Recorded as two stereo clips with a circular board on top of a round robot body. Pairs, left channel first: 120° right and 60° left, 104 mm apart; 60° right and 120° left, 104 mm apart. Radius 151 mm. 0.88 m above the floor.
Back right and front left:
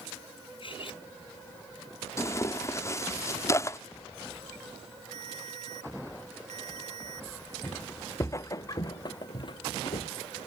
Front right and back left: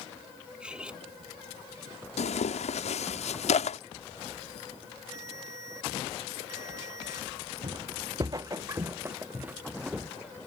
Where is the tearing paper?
55° right.